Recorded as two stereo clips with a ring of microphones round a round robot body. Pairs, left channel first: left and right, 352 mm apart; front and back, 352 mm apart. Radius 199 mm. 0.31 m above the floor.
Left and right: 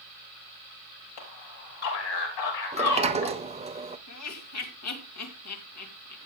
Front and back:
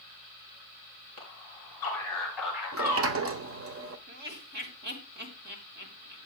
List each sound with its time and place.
1.2 s a man speaking: 80° left, 5.5 m; by 3.4 s 105° left, 4.5 m
2.7 s a sliding door: 155° right, 1.2 m
4.1 s laughter: 120° left, 2.5 m